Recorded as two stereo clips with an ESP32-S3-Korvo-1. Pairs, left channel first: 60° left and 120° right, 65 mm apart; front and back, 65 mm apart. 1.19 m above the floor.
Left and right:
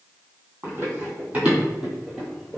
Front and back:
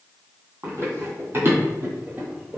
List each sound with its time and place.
0.6 s running footsteps: 155° right, 1.7 m; by 2.6 s 140° left, 1.3 m